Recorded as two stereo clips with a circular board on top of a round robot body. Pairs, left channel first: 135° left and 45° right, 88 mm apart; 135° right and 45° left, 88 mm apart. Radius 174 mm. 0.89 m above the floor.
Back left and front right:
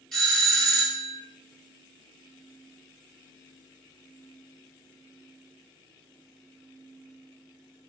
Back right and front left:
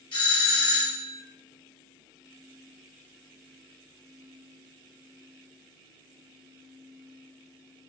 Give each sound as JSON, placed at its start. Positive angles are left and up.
{"t": 0.1, "sound": "a doorbell", "azimuth_deg": -140, "distance_m": 1.6}